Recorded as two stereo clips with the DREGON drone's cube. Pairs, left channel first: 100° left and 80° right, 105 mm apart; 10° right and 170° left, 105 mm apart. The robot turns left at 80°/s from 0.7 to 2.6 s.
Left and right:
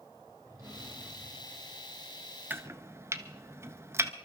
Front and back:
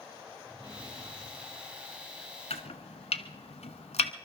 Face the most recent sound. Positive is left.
turn(degrees=-15)